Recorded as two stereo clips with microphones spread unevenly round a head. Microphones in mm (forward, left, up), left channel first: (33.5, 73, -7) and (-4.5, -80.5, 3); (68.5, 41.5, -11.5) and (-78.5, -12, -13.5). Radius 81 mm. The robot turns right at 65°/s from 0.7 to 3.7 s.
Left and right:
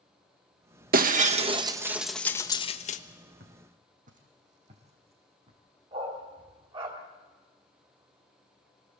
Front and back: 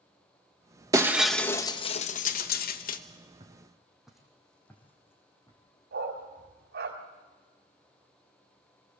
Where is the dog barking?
160° right, 3 m.